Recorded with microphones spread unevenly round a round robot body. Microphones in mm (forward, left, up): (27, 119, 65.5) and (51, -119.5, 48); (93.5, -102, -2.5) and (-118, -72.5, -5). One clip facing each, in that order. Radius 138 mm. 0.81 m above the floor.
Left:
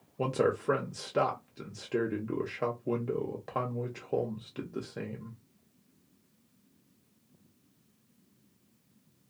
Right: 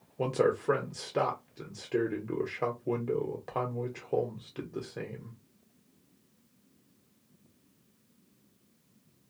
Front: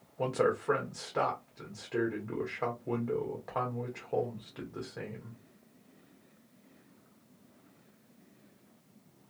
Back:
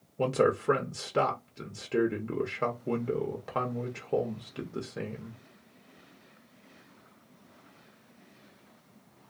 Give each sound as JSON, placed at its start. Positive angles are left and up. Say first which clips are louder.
{"t": 0.2, "sound": "a man speaking", "louder": "right 1 dB, back 4 dB", "azimuth_deg": 180, "distance_m": 0.6}